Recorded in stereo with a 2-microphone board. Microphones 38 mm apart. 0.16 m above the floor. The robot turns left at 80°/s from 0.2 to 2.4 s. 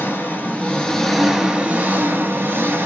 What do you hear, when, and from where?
0.0 s an engine running: 75° left, 1.1 m; by 2.9 s 100° right, 1.1 m